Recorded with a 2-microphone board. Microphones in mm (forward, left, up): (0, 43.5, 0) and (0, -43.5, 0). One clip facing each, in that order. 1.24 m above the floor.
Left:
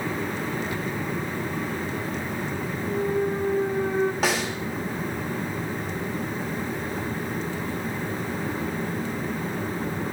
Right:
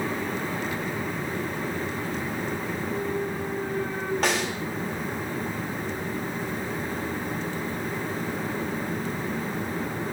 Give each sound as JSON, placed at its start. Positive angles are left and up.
{"t": 2.9, "sound": "a clunk", "side_deg": 20, "distance_m": 0.9}
{"t": 4.2, "sound": "a snare drum", "side_deg": 5, "distance_m": 2.0}